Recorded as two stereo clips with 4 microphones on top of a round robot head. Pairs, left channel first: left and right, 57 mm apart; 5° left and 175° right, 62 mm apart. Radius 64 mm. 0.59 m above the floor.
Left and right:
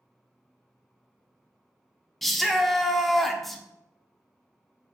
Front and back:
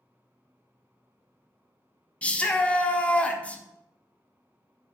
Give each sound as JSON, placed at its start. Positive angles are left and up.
{"t": 2.2, "sound": "a shout", "azimuth_deg": 5, "distance_m": 0.7}